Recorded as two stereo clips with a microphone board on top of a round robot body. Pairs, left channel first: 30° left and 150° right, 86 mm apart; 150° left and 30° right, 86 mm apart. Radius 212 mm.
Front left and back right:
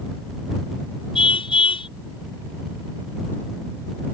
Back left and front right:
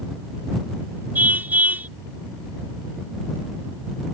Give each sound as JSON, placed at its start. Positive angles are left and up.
{"t": 1.1, "sound": "a car horn", "azimuth_deg": 40}